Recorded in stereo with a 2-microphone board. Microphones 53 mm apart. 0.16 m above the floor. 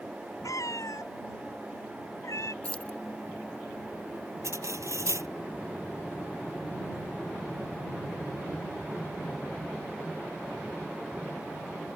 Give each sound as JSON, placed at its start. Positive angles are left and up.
{"t": 0.4, "sound": "a cat meowing", "side_deg": 85}
{"t": 2.6, "sound": "keys jangling", "side_deg": 25}
{"t": 4.4, "sound": "cutlery clinking", "side_deg": -70}